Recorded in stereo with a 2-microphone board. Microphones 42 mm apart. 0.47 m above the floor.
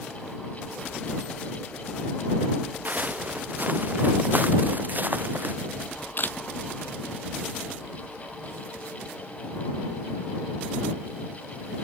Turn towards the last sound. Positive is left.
turn(degrees=55)  # may be behind; listen again after turning